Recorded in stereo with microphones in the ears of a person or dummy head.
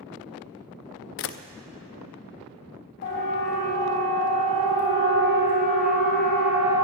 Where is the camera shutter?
65° left (ahead or behind), 0.5 m.